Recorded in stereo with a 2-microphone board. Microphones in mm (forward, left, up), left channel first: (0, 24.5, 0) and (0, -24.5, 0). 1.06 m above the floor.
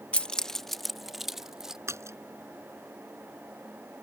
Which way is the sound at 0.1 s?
25° left (ahead or behind).